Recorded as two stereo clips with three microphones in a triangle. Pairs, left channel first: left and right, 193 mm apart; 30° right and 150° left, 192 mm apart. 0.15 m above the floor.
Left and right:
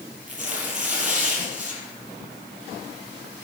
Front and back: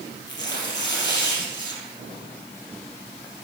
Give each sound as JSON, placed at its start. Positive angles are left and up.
{"t": 0.3, "sound": "tearing paper", "azimuth_deg": -45, "distance_m": 4.0}